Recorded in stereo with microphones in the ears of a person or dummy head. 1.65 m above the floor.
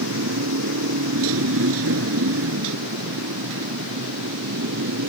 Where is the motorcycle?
80° right; by 5.1 s 70° right (ahead or behind).